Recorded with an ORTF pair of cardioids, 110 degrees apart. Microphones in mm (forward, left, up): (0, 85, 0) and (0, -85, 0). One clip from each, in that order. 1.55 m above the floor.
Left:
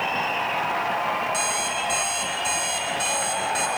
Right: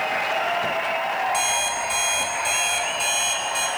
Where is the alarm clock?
5° right, 6.5 m.